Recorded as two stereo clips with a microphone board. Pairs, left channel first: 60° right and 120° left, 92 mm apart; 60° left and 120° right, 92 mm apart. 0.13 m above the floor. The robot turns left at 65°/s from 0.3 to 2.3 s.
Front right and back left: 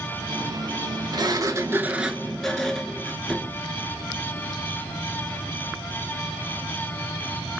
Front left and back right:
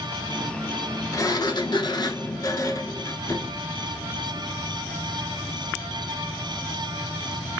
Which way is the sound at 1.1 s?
100° left.